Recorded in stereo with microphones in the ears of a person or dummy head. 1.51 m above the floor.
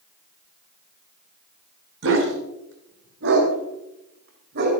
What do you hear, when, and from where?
2.0 s a dog barking: 75° right (ahead or behind), 4 m; by 4.7 s 60° right (ahead or behind), 5 m